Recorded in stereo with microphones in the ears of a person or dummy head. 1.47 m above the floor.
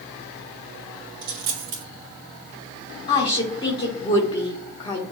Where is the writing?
I don't hear writing.